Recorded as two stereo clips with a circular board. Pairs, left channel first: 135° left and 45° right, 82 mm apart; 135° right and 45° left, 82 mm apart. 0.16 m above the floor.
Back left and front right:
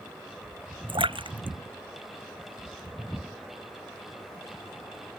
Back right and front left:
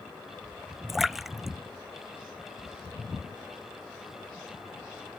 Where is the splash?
40° right.